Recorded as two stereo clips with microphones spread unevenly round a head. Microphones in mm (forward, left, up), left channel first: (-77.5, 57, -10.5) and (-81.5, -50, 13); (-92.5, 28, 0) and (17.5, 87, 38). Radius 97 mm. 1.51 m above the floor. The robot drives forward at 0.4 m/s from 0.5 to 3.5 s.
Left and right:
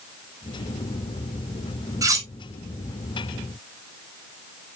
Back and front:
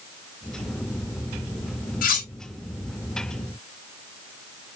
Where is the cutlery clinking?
140° right, 1.9 m; by 2.3 s 145° right, 2.0 m.